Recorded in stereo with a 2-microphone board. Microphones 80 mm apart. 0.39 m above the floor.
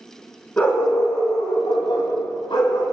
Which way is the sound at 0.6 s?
20° left (ahead or behind).